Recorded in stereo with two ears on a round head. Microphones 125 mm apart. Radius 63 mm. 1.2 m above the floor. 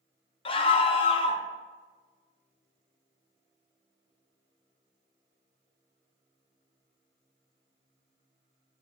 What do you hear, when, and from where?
0.5 s a scream: 40° left (ahead or behind), 0.6 m